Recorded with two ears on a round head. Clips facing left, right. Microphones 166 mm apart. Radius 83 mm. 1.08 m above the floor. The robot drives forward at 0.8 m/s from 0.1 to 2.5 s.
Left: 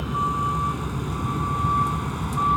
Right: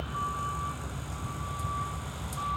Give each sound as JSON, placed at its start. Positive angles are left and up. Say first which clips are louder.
{"t": 0.0, "sound": "a vehicle", "louder": "left 10 dB", "side_deg": 65}